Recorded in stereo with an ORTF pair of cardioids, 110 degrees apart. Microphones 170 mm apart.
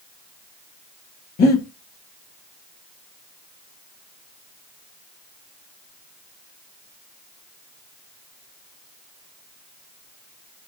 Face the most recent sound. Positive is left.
turn(degrees=65)